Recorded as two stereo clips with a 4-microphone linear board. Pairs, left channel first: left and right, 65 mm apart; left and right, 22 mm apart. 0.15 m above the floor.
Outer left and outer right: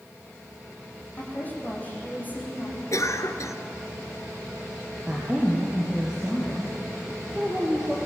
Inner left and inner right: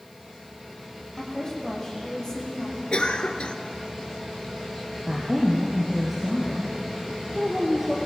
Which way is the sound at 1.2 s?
25° left (ahead or behind).